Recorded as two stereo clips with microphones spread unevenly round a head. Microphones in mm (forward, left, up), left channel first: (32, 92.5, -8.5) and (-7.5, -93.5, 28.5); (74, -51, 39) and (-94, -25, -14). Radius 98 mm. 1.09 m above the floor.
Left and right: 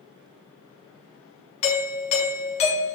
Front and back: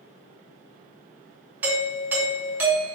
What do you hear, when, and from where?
1.6 s a doorbell: 110° left, 1.1 m